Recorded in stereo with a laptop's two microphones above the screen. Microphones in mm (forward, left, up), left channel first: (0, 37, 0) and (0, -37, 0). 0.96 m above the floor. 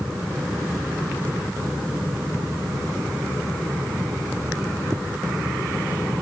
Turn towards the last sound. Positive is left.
No sound to turn to.